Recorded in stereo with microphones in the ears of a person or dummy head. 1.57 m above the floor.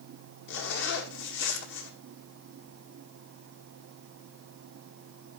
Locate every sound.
0.5 s a zipper: 65° left (ahead or behind), 2.0 m